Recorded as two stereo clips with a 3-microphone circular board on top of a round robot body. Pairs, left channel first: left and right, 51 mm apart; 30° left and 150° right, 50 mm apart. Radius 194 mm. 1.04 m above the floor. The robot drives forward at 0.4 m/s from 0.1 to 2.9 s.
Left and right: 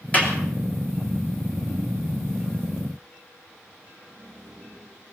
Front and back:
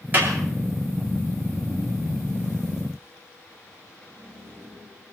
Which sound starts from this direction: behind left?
A clap, at 0.1 s.